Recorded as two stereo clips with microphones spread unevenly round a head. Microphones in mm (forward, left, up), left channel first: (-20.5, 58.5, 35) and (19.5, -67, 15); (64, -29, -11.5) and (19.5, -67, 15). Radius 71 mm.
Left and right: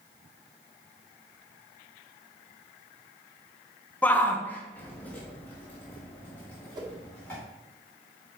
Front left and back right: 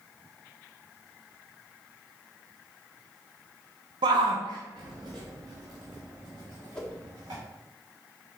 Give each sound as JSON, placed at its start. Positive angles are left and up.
{"t": 4.0, "sound": "a shout", "azimuth_deg": -170, "distance_m": 0.6}
{"t": 6.8, "sound": "a whoosh", "azimuth_deg": -20, "distance_m": 1.5}